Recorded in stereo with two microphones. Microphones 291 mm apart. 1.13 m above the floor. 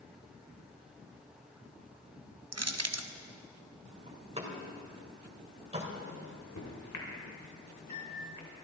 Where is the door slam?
20° right (ahead or behind), 3 m.